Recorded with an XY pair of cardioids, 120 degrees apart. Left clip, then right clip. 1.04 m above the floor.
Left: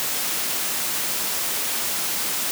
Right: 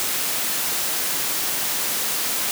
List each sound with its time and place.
Only background noise.